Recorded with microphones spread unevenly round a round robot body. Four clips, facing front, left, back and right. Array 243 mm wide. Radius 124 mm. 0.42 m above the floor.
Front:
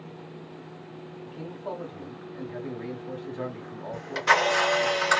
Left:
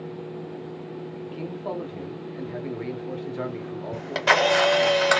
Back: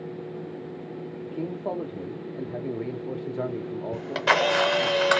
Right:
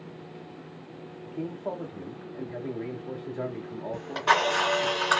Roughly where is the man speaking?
Behind.